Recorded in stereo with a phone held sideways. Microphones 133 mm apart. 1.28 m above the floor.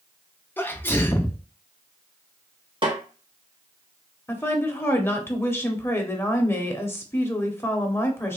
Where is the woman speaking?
15° left (ahead or behind), 0.6 m.